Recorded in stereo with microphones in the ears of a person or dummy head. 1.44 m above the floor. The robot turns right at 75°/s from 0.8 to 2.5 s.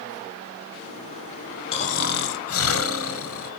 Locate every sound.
1.7 s snoring: 35° left, 0.8 m; by 3.5 s 90° left, 0.8 m